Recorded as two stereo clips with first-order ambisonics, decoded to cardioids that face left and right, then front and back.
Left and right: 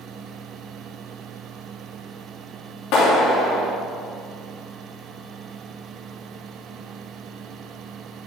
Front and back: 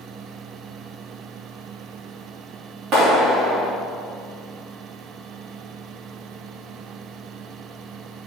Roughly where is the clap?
Behind left.